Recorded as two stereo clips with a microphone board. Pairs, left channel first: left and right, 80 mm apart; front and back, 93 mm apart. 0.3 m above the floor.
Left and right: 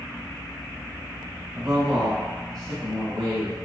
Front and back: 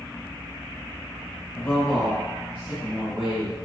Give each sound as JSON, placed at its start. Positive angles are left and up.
{"t": 1.6, "sound": "a man speaking", "azimuth_deg": -35, "distance_m": 1.0}